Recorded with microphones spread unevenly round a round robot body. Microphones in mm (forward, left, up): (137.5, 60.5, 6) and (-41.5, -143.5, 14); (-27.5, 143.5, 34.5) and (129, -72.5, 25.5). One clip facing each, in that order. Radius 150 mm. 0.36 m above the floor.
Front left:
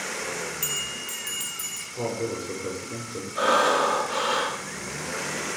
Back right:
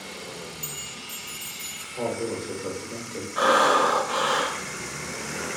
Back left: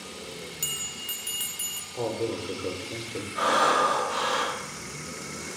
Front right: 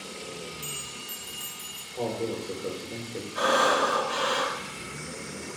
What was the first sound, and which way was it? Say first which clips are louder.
A bell: front left 4 dB, even; 70° left.